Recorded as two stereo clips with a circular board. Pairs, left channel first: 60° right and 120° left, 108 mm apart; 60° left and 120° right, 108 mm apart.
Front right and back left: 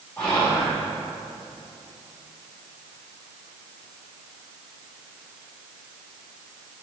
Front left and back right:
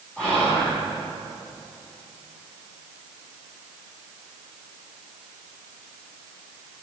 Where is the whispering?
10° left, 1.3 m.